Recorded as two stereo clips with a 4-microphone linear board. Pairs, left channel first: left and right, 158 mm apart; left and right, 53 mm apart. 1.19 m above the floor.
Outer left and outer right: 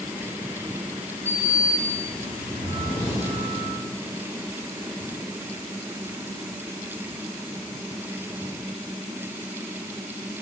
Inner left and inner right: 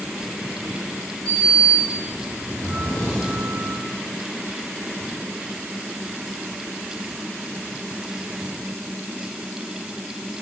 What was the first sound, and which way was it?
A sliding door, 15° left (ahead or behind).